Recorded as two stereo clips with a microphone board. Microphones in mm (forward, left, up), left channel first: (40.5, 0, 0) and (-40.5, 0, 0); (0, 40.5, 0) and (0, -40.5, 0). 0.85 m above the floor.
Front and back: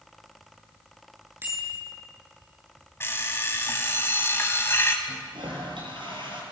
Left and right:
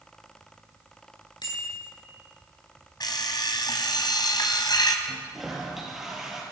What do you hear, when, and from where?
1.4 s a bicycle bell: 120° left, 9 m
3.0 s an alarm clock: 60° left, 3 m
5.0 s a toilet flushing: 175° right, 6.5 m